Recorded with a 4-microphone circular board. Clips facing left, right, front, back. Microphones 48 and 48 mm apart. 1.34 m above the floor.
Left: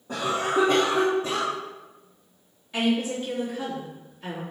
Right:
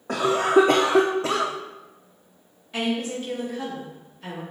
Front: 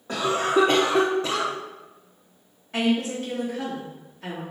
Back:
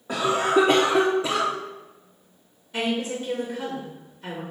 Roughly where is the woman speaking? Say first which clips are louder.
Left 2 dB, front 3 dB; ahead.